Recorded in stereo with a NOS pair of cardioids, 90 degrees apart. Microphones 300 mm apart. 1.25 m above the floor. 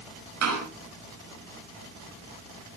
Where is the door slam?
60° right, 9.5 m.